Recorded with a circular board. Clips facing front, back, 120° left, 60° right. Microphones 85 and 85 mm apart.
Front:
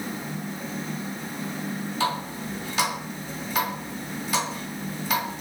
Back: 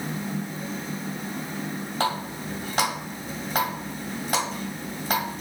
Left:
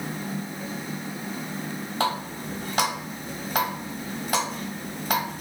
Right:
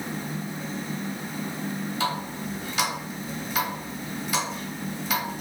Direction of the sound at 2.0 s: 150° left.